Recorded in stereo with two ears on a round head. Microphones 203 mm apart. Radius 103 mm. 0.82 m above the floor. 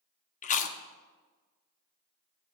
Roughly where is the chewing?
Left.